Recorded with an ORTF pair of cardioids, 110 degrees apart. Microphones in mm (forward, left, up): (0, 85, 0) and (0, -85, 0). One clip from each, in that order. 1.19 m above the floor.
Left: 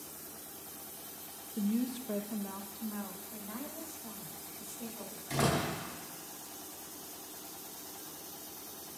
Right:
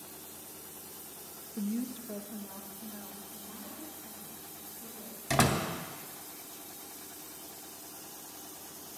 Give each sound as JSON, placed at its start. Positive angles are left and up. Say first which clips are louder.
{"t": 1.6, "sound": "a woman speaking", "louder": "left 2 dB", "azimuth_deg": 5, "distance_m": 0.7}
{"t": 3.3, "sound": "a woman speaking", "louder": "left 3 dB", "azimuth_deg": 65, "distance_m": 3.5}
{"t": 5.3, "sound": "a door slam", "louder": "right 3 dB", "azimuth_deg": -70, "distance_m": 3.0}